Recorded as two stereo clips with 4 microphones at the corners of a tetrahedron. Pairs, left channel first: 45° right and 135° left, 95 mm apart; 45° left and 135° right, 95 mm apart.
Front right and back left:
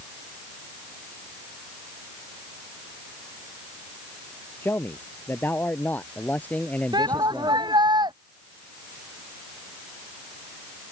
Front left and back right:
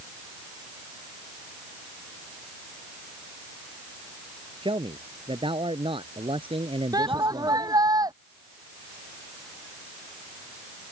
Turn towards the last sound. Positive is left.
turn(degrees=175)